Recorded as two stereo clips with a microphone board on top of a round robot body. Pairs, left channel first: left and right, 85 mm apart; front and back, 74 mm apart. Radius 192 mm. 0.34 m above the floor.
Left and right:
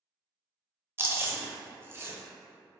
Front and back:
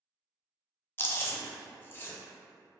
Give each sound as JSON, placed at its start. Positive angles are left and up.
{"t": 1.0, "sound": "chewing", "azimuth_deg": -45, "distance_m": 0.8}